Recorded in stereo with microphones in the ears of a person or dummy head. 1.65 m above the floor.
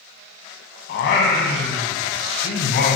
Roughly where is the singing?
Left.